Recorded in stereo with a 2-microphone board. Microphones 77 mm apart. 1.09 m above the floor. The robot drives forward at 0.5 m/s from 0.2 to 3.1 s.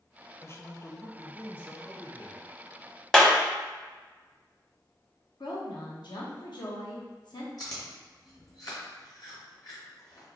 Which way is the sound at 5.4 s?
70° left (ahead or behind).